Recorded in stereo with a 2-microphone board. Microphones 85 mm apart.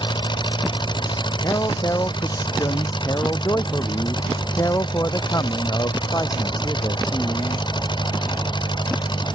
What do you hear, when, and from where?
0.0 s an engine running: 65° left (ahead or behind)
1.4 s a man speaking: 45° left (ahead or behind)